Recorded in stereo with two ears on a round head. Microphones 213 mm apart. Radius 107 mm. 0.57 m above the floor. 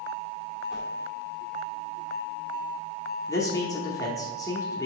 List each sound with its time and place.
0.7 s a whoosh: centre (ahead or behind), 1.6 m
3.3 s a man speaking: 15° left (ahead or behind), 0.9 m